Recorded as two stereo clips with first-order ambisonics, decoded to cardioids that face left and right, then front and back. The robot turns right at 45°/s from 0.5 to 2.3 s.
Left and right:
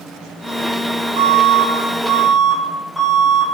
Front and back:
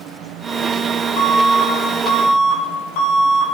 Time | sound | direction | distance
1.2 | an alarm | 50° right | 5.5 m